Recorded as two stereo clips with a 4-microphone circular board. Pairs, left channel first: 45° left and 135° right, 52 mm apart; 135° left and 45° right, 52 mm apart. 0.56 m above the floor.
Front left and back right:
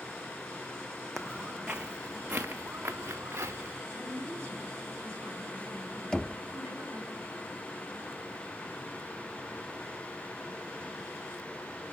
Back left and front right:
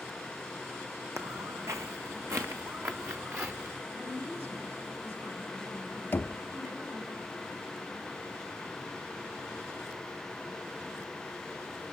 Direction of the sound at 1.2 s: 40° right.